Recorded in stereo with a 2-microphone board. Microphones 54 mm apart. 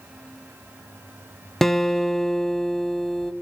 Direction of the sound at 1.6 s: 5° left (ahead or behind).